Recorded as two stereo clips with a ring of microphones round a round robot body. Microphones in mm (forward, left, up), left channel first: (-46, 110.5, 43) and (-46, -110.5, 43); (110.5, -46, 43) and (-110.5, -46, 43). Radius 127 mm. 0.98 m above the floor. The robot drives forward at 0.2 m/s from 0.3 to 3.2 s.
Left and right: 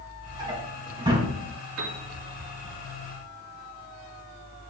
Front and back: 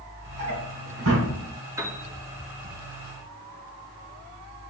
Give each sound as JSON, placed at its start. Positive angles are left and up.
{"t": 0.4, "sound": "a drawer", "azimuth_deg": -160, "distance_m": 5.5}
{"t": 1.8, "sound": "a piano", "azimuth_deg": -105, "distance_m": 2.5}